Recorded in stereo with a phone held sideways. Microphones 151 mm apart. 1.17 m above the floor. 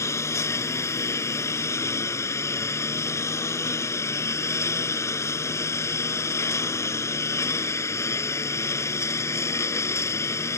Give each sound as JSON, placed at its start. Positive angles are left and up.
{"t": 0.0, "sound": "a lawn mower", "side_deg": 20}